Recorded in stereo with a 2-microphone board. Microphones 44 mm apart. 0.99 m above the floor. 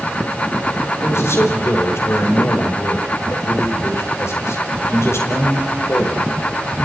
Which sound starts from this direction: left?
A man speaking, at 1.0 s.